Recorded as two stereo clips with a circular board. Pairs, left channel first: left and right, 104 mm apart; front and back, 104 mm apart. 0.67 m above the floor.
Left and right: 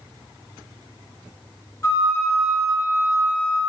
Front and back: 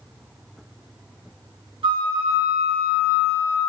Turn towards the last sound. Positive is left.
turn(degrees=150)